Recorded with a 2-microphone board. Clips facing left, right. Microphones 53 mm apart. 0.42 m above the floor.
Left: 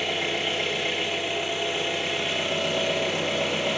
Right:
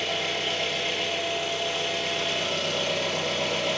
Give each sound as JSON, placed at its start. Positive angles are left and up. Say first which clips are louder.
{"t": 0.0, "sound": "an engine running", "louder": "left 1 dB", "side_deg": 20, "distance_m": 5.0}